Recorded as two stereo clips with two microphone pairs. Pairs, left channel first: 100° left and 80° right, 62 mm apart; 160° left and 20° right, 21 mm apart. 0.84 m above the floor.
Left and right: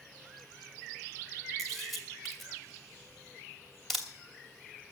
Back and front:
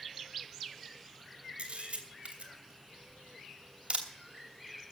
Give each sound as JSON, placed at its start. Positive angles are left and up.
{"t": 1.6, "sound": "a camera shutter", "azimuth_deg": 15, "distance_m": 2.5}